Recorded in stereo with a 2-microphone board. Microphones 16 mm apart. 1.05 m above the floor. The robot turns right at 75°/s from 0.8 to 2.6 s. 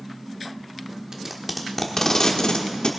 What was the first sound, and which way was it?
Tape being pulled, 40° right (ahead or behind).